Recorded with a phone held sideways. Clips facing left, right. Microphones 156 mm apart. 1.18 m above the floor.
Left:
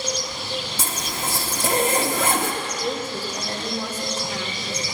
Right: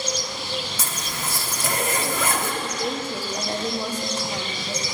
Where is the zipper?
30° left (ahead or behind), 1.3 m.